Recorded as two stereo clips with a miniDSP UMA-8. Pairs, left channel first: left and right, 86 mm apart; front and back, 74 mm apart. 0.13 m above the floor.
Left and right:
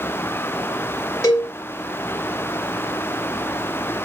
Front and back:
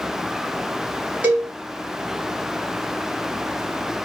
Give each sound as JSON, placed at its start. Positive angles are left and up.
{"t": 1.2, "sound": "a cowbell", "azimuth_deg": 120, "distance_m": 2.0}